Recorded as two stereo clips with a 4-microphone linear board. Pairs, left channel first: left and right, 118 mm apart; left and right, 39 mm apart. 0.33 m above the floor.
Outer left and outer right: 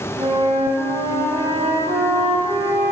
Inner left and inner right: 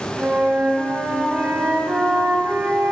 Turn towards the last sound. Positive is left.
turn(degrees=-55)  # may be behind; listen again after turning